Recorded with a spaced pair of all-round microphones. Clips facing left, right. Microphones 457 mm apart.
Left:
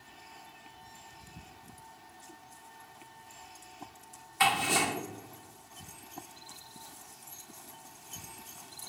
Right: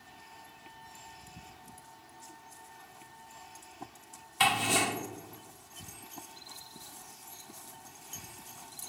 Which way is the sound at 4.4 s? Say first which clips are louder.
Even; 50° right (ahead or behind).